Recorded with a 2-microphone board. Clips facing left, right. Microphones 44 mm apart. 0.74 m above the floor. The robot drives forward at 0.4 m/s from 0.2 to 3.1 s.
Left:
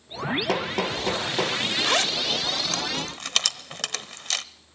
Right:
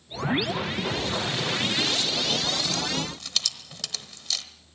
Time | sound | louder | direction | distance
0.5 | hammering | left 3 dB | 75° left (ahead or behind) | 6 m
1.8 | a zipper | left 3 dB | 75° left (ahead or behind) | 1.0 m